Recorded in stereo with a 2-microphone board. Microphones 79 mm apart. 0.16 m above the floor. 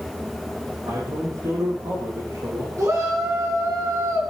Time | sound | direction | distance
0.8 | a man speaking | 55° right (ahead or behind) | 5.5 m
2.8 | a shout | 40° right (ahead or behind) | 1.8 m